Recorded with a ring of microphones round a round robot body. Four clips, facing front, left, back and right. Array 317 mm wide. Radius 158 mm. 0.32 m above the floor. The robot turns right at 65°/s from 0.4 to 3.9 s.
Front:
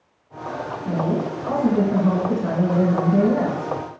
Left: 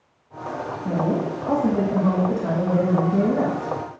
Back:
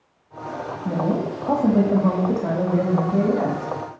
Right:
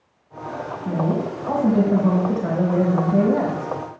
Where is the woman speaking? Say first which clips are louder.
Even, even; 125° left, 1.8 m; by 3.7 s 50° right, 1.8 m.